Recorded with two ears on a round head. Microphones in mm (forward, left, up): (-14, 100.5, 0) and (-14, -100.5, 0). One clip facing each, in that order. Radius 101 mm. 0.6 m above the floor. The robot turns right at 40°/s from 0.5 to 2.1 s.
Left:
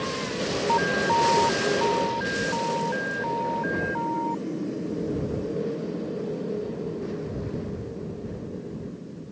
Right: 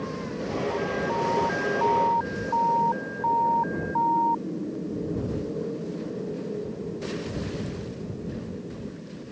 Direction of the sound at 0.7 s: 100° left.